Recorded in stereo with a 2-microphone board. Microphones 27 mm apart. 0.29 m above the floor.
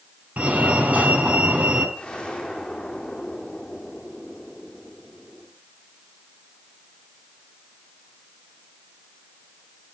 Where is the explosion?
25° left (ahead or behind), 6.5 m.